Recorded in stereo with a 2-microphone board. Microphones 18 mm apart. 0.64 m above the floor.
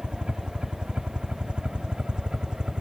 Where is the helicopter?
60° right (ahead or behind); by 2.8 s 50° right (ahead or behind).